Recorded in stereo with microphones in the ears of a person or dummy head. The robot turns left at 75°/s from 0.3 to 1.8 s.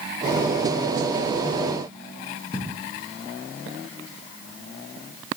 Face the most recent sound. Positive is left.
turn(degrees=35)  # may be behind; listen again after turning